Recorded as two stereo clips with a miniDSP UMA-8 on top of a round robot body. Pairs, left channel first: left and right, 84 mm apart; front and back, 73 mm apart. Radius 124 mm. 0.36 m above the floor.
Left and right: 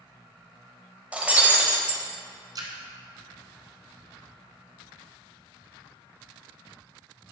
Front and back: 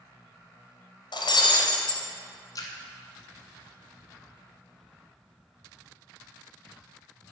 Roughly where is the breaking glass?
Ahead.